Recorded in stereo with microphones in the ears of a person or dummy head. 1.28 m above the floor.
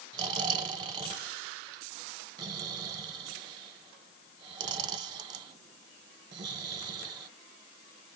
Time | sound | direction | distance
0.1 | snoring | 30° right (ahead or behind) | 0.8 m